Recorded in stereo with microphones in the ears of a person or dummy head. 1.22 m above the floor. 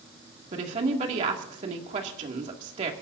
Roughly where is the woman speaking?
Right.